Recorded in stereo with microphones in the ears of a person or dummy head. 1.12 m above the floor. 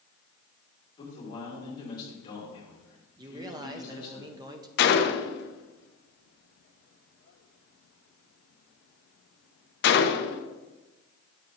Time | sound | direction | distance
1.0 | a man speaking | 25° left (ahead or behind) | 3 m
3.2 | a man speaking | 20° right (ahead or behind) | 0.5 m
4.8 | a gunshot | 50° left (ahead or behind) | 0.5 m